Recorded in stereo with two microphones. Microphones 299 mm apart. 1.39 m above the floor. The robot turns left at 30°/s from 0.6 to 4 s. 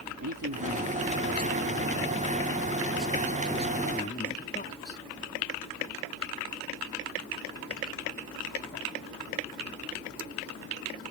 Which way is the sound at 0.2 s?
110° right.